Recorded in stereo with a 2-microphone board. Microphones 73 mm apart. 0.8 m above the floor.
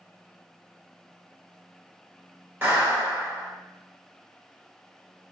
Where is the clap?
30° right (ahead or behind), 1.8 m.